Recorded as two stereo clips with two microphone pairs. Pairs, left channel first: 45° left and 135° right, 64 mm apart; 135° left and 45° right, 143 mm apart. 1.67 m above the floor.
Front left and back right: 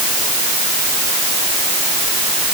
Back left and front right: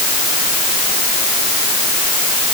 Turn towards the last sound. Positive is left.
No sound to turn to.